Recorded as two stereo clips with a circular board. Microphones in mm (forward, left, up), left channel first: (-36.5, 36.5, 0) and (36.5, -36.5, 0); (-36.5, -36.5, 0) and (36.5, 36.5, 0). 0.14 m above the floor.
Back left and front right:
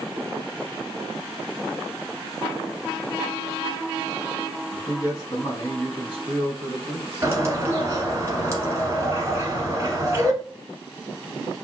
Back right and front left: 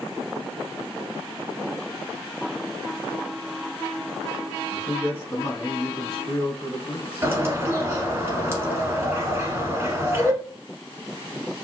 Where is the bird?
5° right, 1.0 m.